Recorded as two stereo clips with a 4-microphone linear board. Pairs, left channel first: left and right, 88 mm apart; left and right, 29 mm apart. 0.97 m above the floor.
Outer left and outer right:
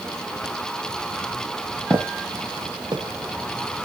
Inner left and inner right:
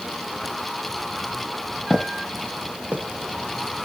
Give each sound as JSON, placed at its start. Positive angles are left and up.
{"t": 1.9, "sound": "footsteps", "side_deg": -20, "distance_m": 1.4}